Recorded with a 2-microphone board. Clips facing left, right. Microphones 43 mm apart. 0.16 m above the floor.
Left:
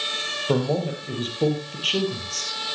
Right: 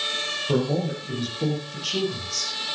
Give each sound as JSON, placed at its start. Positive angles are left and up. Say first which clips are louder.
{"t": 0.5, "sound": "a man speaking", "louder": "left 1 dB", "side_deg": 35, "distance_m": 5.0}